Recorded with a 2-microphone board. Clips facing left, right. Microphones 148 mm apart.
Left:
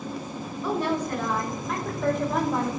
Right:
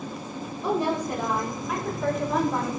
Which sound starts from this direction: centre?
A woman speaking, at 0.6 s.